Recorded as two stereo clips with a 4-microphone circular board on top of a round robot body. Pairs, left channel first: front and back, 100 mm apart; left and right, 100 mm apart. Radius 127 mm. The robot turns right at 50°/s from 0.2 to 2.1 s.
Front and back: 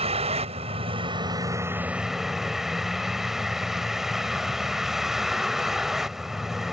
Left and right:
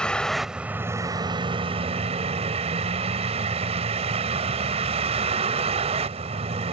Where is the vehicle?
170° left; by 6.7 s 95° right.